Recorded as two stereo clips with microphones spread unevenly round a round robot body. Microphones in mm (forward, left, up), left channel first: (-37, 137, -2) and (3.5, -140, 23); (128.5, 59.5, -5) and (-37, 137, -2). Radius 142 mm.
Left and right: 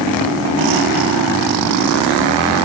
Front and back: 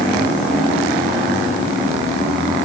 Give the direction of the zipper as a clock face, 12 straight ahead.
No zipper in this recording.